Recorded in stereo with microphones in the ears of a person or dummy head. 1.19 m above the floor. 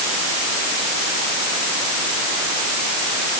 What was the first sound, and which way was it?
Only background noise.